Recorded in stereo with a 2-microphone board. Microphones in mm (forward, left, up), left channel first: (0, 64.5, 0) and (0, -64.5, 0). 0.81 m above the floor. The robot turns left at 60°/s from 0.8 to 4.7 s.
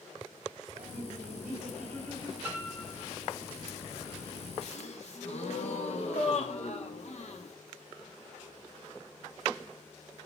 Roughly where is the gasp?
Left.